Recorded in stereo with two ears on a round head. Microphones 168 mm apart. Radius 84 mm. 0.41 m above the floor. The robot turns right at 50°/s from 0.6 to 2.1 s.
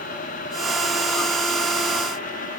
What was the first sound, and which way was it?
Only background noise.